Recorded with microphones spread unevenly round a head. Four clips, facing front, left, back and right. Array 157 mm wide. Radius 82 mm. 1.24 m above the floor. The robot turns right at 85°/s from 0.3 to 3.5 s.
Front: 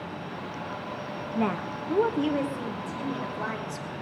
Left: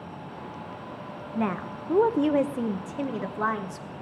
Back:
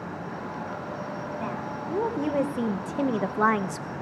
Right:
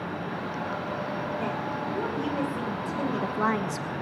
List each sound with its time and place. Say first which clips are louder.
1.4 s a woman speaking: even, front 8 dB; 30° left, 1.1 m; by 3.9 s 150° right, 1.1 m